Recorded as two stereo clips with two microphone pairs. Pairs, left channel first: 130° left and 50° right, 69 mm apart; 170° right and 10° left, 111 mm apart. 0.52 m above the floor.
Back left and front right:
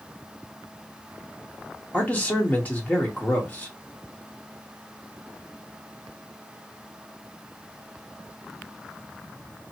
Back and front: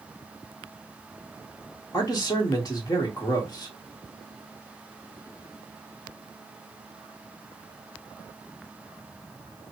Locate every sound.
1.9 s a man speaking: straight behind, 1.3 m